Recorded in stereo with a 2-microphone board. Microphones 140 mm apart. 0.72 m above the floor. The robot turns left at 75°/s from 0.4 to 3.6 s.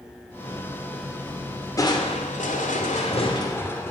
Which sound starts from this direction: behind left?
Crushing, at 1.8 s.